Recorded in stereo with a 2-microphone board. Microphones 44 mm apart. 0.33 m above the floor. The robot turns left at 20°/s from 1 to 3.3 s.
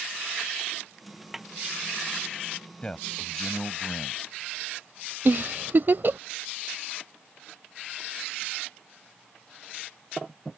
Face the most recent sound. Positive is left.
turn(degrees=-55)  # may be behind; listen again after turning